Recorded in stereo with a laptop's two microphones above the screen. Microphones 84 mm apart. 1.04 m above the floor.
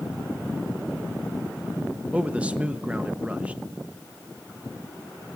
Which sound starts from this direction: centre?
A man speaking, at 2.1 s.